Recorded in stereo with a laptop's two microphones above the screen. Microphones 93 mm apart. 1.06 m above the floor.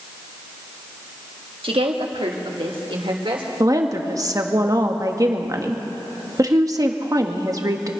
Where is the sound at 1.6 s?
70° right (ahead or behind), 1.5 m; by 3.5 s 65° right (ahead or behind), 3.5 m.